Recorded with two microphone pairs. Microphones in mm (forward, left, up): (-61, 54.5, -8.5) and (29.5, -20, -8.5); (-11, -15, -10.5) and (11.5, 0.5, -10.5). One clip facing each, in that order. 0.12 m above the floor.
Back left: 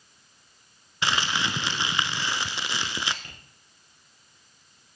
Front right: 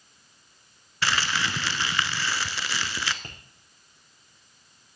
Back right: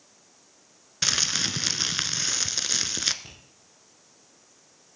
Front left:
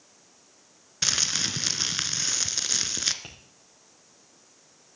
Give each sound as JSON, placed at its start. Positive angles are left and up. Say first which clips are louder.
{"t": 1.0, "sound": "crumpling", "louder": "even, back right 1 dB", "azimuth_deg": 155, "distance_m": 0.7}
{"t": 3.2, "sound": "tapping", "louder": "front right 4 dB, front left 2 dB", "azimuth_deg": 10, "distance_m": 5.5}